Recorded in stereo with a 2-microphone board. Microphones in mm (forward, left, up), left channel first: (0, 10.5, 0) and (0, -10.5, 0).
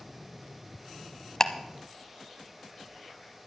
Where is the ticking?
25° left (ahead or behind), 0.8 m.